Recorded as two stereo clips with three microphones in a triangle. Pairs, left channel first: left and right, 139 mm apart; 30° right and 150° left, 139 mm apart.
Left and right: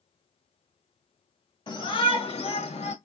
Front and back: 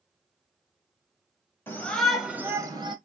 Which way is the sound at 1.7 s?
40° left.